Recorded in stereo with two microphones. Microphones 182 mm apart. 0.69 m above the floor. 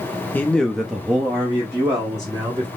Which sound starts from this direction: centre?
A man speaking, at 0.3 s.